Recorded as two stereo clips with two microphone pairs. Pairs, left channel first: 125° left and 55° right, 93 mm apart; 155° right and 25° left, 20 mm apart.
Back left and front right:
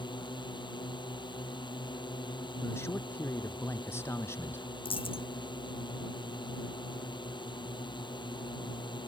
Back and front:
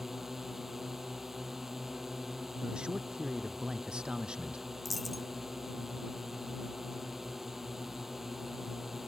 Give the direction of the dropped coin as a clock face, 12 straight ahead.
8 o'clock.